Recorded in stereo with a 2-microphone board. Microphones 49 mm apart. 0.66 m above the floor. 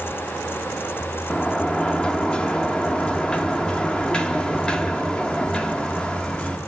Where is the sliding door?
20° left (ahead or behind), 1.6 m.